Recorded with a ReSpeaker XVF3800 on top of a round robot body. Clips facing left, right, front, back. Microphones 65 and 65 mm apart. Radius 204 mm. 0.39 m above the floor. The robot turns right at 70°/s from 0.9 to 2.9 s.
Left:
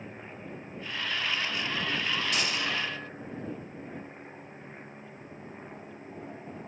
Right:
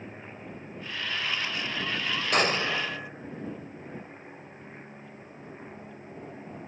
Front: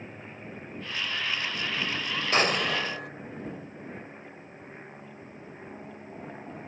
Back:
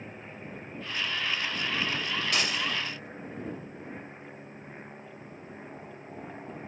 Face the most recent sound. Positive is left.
turn(degrees=-15)